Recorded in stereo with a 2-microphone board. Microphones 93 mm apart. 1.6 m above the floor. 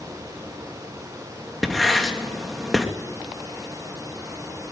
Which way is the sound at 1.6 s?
Centre (ahead or behind).